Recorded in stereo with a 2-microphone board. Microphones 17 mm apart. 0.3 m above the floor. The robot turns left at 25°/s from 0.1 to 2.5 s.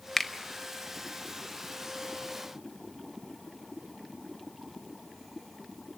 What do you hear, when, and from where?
0.2 s a finger snap: 25° left (ahead or behind), 0.8 m